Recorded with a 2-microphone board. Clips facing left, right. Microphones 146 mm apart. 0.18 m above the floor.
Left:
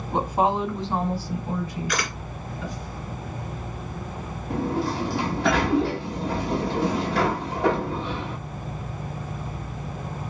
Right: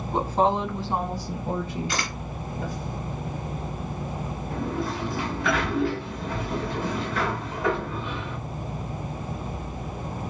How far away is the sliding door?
About 1.6 m.